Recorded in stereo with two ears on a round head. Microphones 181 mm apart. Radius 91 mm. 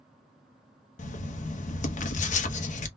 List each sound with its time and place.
1.0 s writing: 35° left (ahead or behind), 0.8 m